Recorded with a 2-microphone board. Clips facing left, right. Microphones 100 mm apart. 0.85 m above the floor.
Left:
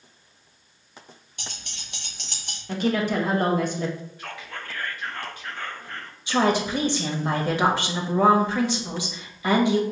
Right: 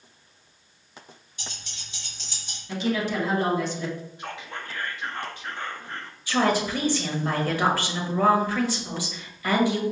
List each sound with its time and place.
1.4 s keys jangling: 60° left (ahead or behind), 1.1 m; by 2.6 s 65° left (ahead or behind), 0.8 m
2.7 s a woman speaking: 50° left (ahead or behind), 0.9 m
4.2 s whispering: 20° right (ahead or behind), 0.6 m
6.3 s a woman speaking: 20° left (ahead or behind), 0.9 m